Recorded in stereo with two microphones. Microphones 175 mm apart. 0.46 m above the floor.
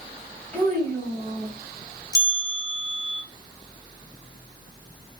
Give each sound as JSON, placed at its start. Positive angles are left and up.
{"t": 0.5, "sound": "a child speaking", "side_deg": 5, "distance_m": 1.7}
{"t": 2.1, "sound": "a bell", "side_deg": 25, "distance_m": 0.7}